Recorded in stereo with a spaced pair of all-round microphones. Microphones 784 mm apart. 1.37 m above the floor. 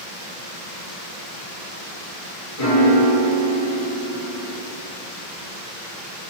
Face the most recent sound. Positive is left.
turn(degrees=45)  # may be behind; listen again after turning